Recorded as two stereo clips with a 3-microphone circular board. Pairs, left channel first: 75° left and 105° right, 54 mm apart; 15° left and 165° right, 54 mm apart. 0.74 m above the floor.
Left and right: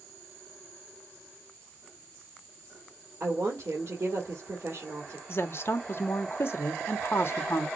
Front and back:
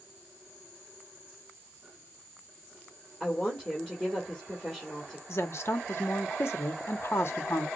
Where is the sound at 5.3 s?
40° left, 1.0 m.